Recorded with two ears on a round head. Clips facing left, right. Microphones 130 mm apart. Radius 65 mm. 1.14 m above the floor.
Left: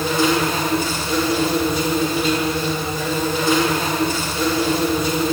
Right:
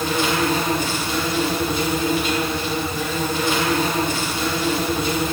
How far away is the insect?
About 7 m.